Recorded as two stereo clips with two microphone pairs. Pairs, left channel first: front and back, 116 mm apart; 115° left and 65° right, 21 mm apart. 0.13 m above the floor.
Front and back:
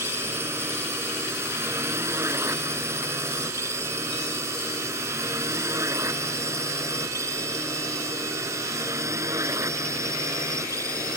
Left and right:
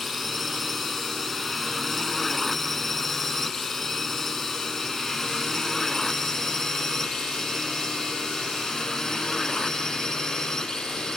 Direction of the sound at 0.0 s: 160° right.